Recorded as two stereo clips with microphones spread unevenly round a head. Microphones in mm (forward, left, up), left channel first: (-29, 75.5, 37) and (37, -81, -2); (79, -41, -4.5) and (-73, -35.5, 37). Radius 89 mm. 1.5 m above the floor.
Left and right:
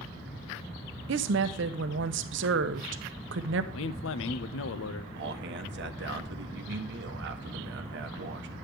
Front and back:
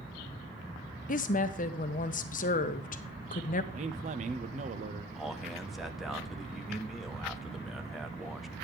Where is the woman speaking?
45° right, 0.7 m.